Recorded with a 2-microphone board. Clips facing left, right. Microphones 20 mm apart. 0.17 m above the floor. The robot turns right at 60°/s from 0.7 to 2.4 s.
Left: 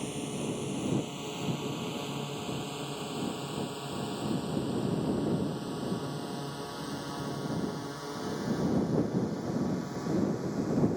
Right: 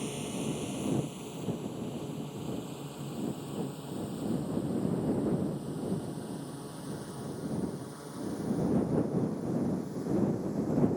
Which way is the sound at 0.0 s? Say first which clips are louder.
Left 1 dB; 15° left (ahead or behind).